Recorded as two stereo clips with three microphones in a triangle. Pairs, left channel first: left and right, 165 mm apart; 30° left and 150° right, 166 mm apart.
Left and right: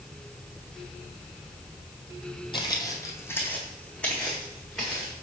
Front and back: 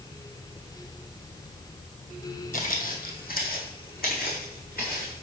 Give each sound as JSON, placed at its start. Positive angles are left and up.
{"t": 2.5, "sound": "footsteps", "azimuth_deg": 40, "distance_m": 1.1}